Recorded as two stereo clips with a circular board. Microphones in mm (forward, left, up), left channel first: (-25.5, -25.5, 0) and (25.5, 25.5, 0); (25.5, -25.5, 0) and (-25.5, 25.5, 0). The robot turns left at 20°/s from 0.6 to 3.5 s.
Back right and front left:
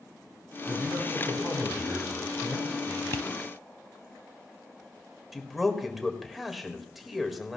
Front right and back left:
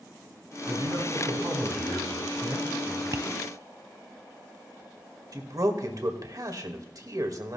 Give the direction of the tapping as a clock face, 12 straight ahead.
6 o'clock.